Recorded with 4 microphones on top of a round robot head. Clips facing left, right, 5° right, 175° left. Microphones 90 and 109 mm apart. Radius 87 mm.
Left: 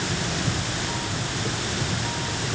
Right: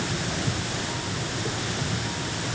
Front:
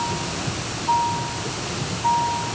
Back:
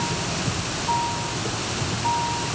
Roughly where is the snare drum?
No snare drum in this recording.